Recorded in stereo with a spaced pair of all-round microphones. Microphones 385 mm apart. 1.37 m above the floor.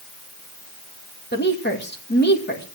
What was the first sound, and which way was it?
A woman speaking, 25° left (ahead or behind).